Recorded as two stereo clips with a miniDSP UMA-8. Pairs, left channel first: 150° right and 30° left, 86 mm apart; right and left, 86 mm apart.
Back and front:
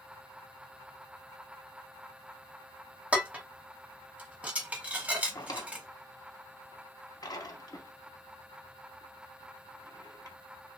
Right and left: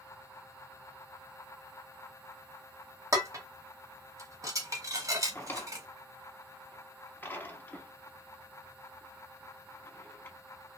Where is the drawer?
150° right, 0.6 m.